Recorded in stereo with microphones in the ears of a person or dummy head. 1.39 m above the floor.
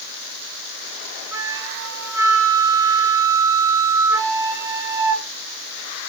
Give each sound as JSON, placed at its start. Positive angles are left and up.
{"t": 1.3, "sound": "a flute", "side_deg": -20, "distance_m": 1.7}